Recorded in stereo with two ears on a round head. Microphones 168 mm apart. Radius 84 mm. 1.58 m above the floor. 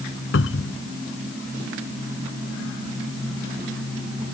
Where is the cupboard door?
80° left.